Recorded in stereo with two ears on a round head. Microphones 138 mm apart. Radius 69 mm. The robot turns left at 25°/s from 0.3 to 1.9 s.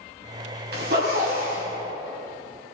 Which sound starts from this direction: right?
A zipper, at 0.7 s.